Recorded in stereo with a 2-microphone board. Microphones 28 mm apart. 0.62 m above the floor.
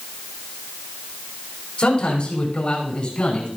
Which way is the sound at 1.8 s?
45° left (ahead or behind).